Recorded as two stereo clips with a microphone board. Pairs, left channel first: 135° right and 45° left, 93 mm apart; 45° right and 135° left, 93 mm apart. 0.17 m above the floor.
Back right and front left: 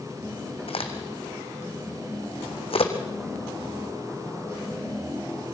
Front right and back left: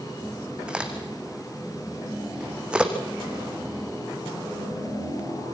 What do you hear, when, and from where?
0.7 s a crack: 145° right, 2.5 m